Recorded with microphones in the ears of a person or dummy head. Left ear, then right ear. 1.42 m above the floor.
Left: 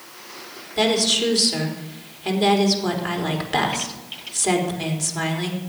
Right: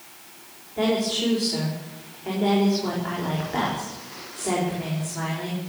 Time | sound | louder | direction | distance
0.8 | a woman speaking | left 5 dB | 90° left | 5 m